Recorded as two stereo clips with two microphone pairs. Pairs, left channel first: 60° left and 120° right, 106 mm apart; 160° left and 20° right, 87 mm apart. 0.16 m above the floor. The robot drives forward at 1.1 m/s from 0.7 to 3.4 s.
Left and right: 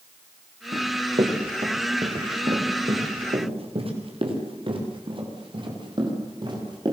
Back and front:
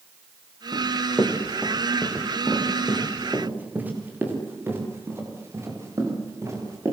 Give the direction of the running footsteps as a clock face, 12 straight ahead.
3 o'clock.